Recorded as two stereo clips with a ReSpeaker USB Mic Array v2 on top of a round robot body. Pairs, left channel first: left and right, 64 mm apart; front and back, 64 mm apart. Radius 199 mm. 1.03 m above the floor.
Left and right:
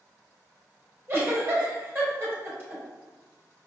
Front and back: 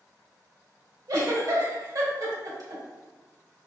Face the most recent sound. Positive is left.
turn(degrees=-145)